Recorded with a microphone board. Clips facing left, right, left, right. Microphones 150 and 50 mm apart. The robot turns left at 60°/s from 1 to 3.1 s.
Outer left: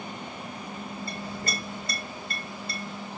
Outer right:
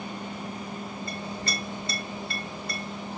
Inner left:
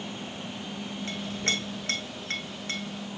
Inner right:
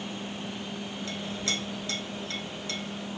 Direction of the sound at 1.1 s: 35° left (ahead or behind).